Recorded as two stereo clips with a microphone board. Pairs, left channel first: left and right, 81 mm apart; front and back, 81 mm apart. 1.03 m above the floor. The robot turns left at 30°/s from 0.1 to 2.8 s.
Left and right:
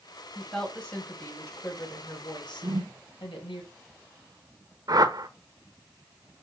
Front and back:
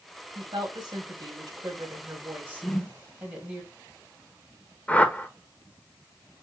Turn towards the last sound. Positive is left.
turn(degrees=-65)